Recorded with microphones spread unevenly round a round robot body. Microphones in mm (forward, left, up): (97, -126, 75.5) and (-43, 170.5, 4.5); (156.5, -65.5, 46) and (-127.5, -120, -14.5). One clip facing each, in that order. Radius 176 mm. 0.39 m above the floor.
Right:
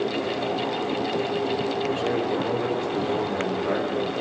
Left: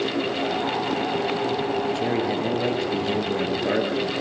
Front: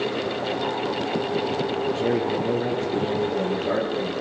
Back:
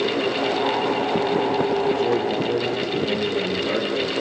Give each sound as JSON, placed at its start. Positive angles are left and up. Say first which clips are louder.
{"t": 1.9, "sound": "a man speaking", "louder": "left 1 dB, back 2 dB", "azimuth_deg": 85, "distance_m": 8.0}